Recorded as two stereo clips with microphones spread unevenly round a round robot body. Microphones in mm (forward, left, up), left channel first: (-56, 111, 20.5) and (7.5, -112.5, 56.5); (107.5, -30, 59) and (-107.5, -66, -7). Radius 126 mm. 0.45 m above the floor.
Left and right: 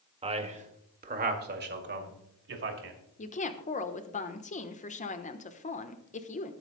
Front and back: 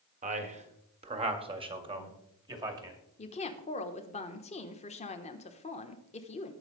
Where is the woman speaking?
80° left, 1.1 m.